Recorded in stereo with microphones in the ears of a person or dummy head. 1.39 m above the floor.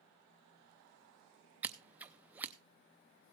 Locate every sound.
1.6 s scissors: 20° right (ahead or behind), 0.7 m